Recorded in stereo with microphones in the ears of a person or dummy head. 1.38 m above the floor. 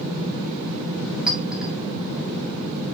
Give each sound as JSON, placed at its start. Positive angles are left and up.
{"t": 1.3, "sound": "a clink", "side_deg": -5, "distance_m": 2.5}